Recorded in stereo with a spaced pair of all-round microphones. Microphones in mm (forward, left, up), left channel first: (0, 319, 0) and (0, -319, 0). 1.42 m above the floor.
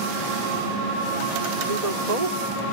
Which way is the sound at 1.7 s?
75° right (ahead or behind).